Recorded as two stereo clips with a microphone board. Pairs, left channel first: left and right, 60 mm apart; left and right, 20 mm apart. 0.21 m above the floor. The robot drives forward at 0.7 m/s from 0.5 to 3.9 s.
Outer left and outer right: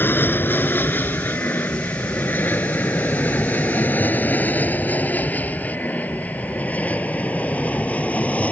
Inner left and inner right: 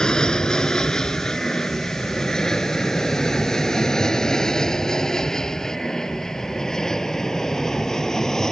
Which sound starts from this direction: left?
An aircraft, at 0.0 s.